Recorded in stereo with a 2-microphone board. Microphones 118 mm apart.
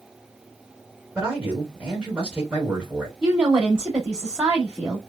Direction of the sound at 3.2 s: 10° right (ahead or behind).